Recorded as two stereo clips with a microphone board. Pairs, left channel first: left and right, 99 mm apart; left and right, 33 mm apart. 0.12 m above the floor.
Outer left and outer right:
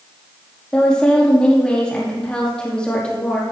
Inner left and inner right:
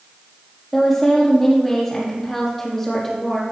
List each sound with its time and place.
0.7 s a woman speaking: 10° left (ahead or behind), 5 m